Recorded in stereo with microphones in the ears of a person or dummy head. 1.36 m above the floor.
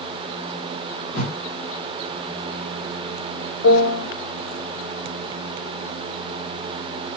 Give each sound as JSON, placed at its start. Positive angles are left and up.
{"t": 1.1, "sound": "a whoosh", "side_deg": 45, "distance_m": 2.0}
{"t": 3.6, "sound": "a piano", "side_deg": 75, "distance_m": 0.9}